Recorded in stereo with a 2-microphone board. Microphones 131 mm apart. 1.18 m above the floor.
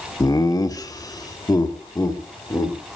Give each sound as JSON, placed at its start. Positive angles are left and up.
{"t": 0.2, "sound": "laughter", "side_deg": 30, "distance_m": 1.3}